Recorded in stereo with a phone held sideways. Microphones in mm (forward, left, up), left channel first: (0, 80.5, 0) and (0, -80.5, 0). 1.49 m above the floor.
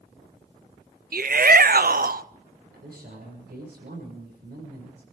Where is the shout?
65° right (ahead or behind), 0.5 m.